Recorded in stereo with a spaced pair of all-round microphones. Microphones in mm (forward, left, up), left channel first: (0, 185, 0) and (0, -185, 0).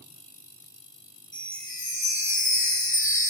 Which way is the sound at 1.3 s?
20° left (ahead or behind).